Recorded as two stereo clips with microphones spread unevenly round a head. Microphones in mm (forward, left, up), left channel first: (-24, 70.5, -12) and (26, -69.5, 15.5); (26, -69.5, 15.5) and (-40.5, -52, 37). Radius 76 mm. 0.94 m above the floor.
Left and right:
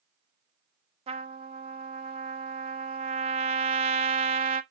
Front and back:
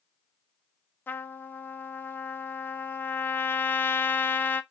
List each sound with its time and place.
1.1 s a trumpet: 20° right, 0.6 m